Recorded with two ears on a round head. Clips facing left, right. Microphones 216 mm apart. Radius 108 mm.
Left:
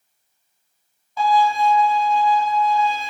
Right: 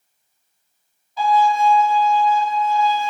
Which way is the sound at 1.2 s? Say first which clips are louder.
Right 1 dB; 45° left (ahead or behind).